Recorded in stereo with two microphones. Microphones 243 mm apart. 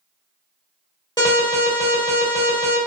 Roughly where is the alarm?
Centre.